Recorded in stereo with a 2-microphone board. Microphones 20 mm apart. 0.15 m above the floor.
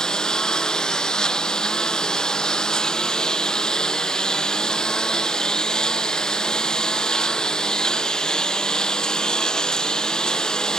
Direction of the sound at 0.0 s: 35° left (ahead or behind).